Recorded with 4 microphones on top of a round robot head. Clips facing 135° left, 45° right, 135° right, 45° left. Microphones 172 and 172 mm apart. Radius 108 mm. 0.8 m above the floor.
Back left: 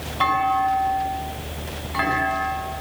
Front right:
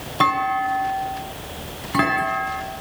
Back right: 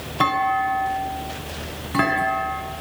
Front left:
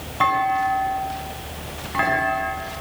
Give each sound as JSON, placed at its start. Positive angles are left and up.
{"t": 0.2, "sound": "a clunk", "azimuth_deg": -85, "distance_m": 5.0}